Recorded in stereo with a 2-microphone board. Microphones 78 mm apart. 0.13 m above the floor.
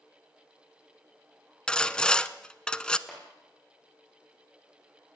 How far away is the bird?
I don't hear a bird.